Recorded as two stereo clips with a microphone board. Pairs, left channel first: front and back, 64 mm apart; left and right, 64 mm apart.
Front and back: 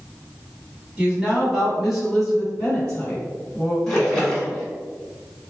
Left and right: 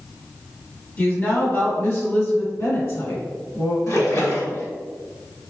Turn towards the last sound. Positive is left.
turn(degrees=75)